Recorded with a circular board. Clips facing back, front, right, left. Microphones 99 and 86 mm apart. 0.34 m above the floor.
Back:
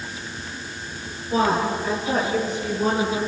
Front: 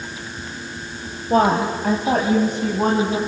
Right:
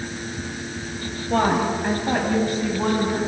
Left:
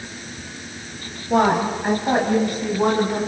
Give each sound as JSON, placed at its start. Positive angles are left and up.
{"t": 1.3, "sound": "a woman speaking", "azimuth_deg": 15, "distance_m": 2.0}